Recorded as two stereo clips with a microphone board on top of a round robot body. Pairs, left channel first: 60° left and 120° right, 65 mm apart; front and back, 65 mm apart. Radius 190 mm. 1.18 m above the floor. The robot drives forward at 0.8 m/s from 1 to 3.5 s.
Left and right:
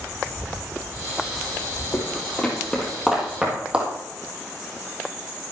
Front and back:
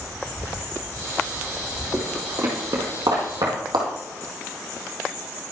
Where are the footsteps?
100° left, 1.9 m; by 3.9 s 170° left, 2.5 m.